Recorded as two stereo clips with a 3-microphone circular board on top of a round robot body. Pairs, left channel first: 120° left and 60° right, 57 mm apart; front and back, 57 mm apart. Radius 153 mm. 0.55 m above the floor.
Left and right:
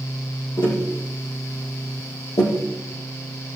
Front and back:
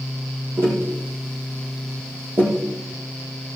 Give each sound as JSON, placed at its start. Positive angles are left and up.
{"t": 0.6, "sound": "tapping", "azimuth_deg": 130, "distance_m": 5.0}